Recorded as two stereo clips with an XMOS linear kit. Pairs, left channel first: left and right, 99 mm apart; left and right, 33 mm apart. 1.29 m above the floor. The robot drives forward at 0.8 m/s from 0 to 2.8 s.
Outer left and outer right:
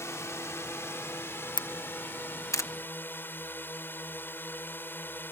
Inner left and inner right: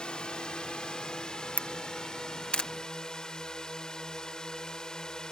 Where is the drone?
30° left (ahead or behind); by 5.3 s 20° left (ahead or behind).